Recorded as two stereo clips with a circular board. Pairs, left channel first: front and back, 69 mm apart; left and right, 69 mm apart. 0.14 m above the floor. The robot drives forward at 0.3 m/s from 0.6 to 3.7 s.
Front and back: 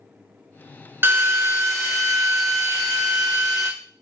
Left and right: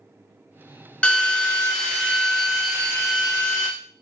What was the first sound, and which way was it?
A drill, 150° left.